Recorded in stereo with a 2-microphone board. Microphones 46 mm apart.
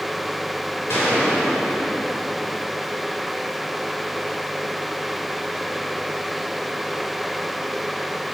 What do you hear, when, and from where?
0.9 s a gunshot: 65° left (ahead or behind), 3.5 m